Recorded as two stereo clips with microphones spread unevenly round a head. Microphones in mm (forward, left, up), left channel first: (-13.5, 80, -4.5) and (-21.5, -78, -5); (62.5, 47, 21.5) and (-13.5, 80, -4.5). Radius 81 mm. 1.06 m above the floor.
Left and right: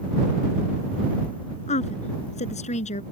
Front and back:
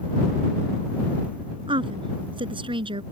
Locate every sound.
1.7 s a woman speaking: 135° left